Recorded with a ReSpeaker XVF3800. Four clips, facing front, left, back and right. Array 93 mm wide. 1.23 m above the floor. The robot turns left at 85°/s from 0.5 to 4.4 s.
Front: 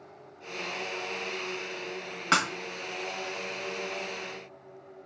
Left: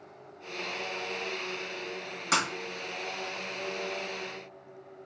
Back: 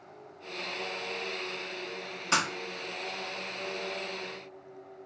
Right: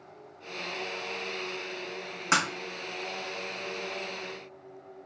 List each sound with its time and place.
2.3 s breaking glass: 25° right, 1.1 m; by 2.5 s 35° right, 1.1 m